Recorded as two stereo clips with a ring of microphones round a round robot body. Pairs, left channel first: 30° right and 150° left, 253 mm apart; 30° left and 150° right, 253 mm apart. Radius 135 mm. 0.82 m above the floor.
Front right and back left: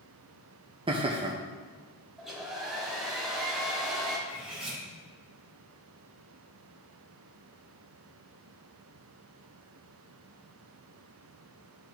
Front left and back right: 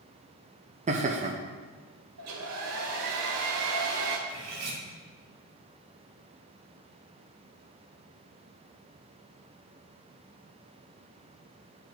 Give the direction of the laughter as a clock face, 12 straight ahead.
6 o'clock.